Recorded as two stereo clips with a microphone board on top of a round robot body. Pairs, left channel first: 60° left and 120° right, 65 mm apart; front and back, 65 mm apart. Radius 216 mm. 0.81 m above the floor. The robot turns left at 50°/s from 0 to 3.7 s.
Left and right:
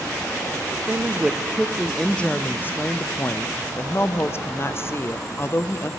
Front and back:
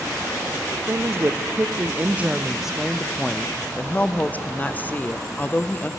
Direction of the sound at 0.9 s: 170° right.